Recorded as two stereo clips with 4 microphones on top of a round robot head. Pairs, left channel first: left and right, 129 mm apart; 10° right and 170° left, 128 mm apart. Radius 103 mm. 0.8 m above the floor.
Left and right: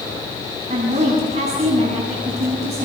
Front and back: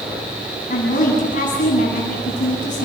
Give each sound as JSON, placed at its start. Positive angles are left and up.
{"t": 0.7, "sound": "a woman speaking", "azimuth_deg": -45, "distance_m": 7.0}